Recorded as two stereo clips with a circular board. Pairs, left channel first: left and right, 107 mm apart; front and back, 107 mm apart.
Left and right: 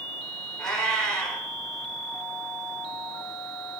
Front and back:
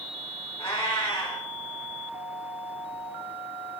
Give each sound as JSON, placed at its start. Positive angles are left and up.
{"t": 0.6, "sound": "a cat meowing", "azimuth_deg": 5, "distance_m": 0.9}